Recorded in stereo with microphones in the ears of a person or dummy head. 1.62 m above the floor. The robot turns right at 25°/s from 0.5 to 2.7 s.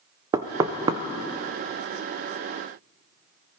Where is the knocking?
20° right (ahead or behind), 0.6 m; by 1.0 s 30° right (ahead or behind), 0.6 m.